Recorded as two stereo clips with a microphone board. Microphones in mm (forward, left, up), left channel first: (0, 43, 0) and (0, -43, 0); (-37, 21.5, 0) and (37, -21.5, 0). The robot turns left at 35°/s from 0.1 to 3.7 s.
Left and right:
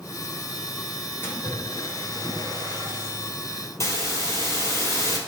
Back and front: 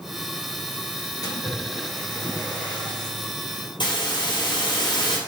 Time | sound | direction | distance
1.2 | a splash | 135° left | 1.9 m
3.8 | a hiss | 140° left | 2.5 m